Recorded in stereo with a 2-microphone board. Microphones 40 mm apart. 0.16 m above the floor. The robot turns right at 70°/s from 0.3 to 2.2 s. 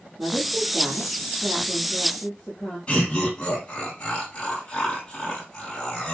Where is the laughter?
25° left (ahead or behind), 6.5 m.